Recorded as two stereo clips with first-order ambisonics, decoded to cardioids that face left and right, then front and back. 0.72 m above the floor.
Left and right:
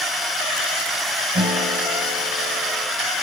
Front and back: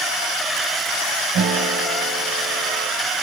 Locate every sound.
1.3 s a guitar: 150° right, 2.5 m